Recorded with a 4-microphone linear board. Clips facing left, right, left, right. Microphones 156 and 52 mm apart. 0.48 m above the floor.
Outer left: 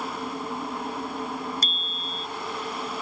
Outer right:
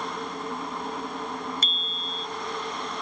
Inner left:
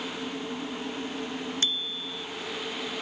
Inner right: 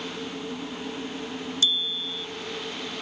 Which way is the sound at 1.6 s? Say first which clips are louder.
Even, inner right 4 dB; 40° left (ahead or behind).